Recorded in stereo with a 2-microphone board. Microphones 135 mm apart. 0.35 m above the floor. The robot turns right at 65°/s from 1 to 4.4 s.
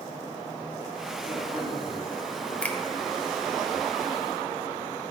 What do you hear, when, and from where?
1.2 s a man speaking: 110° left, 6 m; by 2.5 s 165° right, 6 m
2.6 s a finger snap: 10° left (ahead or behind), 1.1 m; by 2.8 s 15° left (ahead or behind), 1.1 m